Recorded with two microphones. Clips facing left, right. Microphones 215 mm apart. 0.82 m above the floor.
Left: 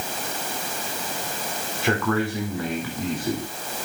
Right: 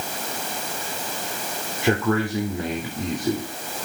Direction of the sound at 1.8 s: 20° right (ahead or behind).